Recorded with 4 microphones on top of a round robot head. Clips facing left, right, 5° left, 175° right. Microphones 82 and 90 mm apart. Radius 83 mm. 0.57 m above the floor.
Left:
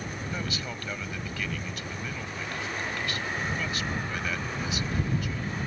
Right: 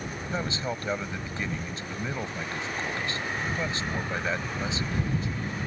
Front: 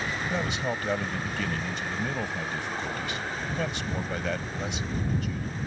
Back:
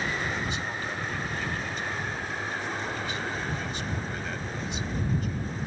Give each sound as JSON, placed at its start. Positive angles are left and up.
{"t": 0.3, "sound": "a man speaking", "azimuth_deg": -25}